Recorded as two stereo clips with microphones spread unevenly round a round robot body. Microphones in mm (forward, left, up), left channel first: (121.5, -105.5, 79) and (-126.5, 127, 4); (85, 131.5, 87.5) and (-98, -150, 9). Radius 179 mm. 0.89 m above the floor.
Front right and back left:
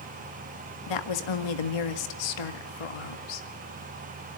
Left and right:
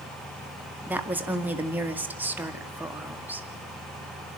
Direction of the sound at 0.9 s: 45° right.